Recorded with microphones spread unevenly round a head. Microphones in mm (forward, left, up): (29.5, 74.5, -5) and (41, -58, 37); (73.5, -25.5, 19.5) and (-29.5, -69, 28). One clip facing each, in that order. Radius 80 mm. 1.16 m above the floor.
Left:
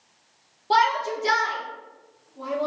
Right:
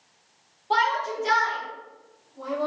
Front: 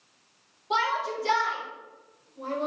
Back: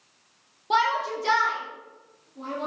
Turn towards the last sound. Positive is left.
turn(degrees=160)